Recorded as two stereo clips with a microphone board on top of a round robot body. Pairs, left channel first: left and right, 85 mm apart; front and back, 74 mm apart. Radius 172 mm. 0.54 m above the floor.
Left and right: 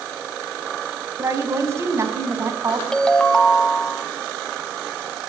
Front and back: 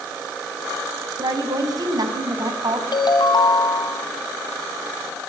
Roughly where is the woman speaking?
Behind right.